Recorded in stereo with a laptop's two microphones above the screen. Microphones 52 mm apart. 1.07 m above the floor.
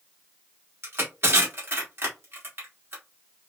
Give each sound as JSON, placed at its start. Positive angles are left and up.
{"t": 0.8, "sound": "crushing", "side_deg": -50, "distance_m": 1.6}